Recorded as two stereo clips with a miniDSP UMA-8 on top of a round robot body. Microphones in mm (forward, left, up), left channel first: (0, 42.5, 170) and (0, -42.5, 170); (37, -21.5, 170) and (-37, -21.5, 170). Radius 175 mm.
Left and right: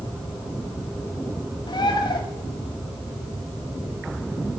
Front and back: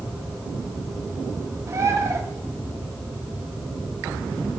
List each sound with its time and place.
1.7 s a bird: 125° left, 1.1 m